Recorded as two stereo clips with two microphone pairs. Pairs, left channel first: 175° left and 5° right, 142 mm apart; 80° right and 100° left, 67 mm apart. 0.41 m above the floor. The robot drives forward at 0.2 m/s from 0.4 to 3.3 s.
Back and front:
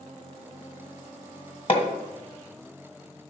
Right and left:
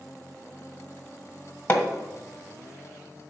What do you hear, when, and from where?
1.7 s hammering: 145° right, 1.6 m